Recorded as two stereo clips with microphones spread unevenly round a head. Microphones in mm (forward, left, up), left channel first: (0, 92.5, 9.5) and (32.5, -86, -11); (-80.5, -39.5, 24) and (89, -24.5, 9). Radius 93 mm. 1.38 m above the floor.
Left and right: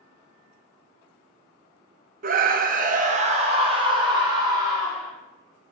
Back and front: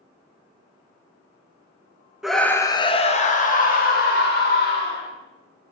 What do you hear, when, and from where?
2.2 s a scream: 75° right, 0.7 m; by 5.1 s 150° right, 1.8 m